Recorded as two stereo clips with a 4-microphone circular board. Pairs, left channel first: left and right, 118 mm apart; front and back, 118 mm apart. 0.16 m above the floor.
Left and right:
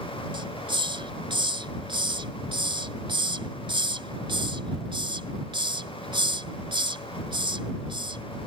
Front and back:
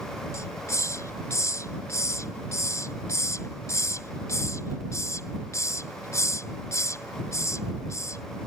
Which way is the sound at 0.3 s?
60° right.